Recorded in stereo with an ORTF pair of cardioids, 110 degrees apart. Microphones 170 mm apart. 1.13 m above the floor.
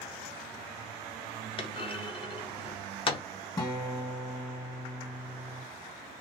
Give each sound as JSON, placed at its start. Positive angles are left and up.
{"t": 1.6, "sound": "a clunk", "azimuth_deg": 30, "distance_m": 0.6}
{"t": 3.6, "sound": "a guitar", "azimuth_deg": 20, "distance_m": 1.0}